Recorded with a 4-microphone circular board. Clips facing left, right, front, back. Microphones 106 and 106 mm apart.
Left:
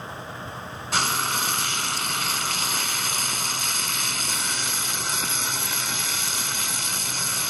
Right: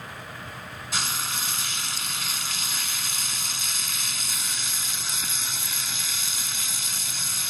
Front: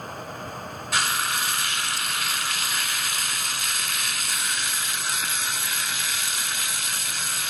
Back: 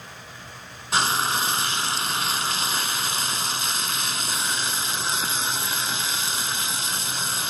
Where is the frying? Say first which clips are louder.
Left 7 dB, back 4 dB; 120° left.